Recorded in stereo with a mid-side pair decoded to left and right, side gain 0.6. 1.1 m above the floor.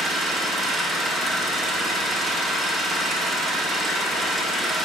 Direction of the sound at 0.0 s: 20° right.